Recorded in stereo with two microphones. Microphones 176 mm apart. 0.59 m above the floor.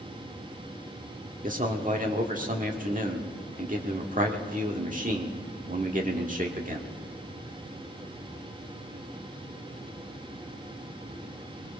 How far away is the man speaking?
About 1.5 m.